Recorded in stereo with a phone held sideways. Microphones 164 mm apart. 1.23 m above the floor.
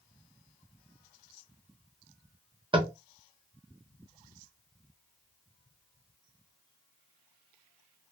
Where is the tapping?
30° right (ahead or behind), 0.6 m.